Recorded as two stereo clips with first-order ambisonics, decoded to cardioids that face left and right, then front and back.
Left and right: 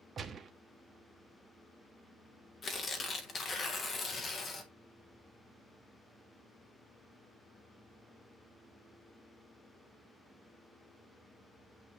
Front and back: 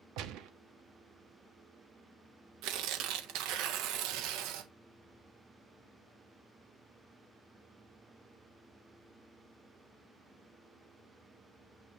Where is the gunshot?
155° right, 1.0 m.